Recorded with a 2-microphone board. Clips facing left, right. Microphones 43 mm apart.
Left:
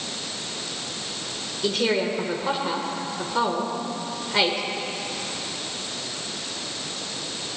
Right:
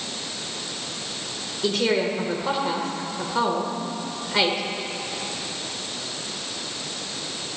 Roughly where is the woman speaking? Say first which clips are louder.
Right 1 dB; centre.